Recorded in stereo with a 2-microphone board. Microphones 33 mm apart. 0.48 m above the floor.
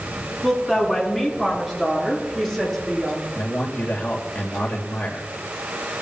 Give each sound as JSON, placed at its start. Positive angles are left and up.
{"t": 0.4, "sound": "a woman speaking", "side_deg": -5, "distance_m": 6.0}
{"t": 3.4, "sound": "a man speaking", "side_deg": 45, "distance_m": 1.8}